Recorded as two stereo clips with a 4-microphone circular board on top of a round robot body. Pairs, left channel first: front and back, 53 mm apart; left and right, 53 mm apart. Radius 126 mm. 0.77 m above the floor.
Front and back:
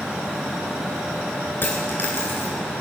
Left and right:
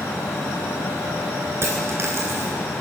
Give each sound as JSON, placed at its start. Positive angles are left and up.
{"t": 1.6, "sound": "a dropped coin", "azimuth_deg": -50, "distance_m": 1.0}